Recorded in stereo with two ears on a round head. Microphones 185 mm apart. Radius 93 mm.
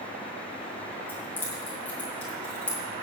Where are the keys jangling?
10° left (ahead or behind), 3.5 m; by 2.8 s 5° left (ahead or behind), 4.5 m.